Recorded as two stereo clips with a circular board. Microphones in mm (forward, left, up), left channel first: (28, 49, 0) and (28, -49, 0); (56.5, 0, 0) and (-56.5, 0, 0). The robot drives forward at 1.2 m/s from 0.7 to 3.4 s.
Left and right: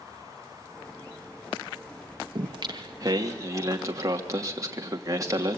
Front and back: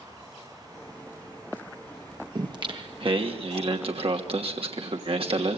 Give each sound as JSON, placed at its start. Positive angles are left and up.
{"t": 2.4, "sound": "singing", "azimuth_deg": -125, "distance_m": 2.0}